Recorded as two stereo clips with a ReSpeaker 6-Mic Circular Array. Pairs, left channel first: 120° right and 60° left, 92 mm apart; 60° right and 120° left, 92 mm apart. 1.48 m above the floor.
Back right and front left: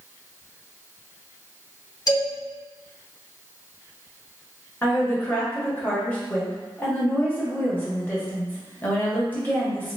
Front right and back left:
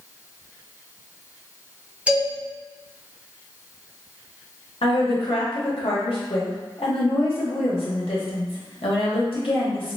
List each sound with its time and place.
2.1 s a man speaking: 165° right, 1.4 m
4.8 s a woman speaking: 50° right, 1.1 m